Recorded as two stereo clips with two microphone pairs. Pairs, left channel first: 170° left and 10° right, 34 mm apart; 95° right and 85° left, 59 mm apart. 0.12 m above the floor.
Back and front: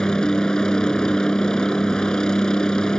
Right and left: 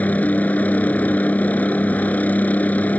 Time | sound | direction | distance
0.0 | a helicopter | 135° right | ?